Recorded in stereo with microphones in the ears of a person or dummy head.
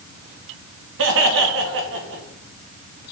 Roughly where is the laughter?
Right.